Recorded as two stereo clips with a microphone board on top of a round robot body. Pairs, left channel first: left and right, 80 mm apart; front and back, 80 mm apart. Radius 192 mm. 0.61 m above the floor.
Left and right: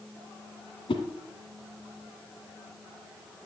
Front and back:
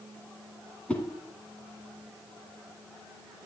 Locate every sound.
0.9 s a whoosh: 75° left, 2 m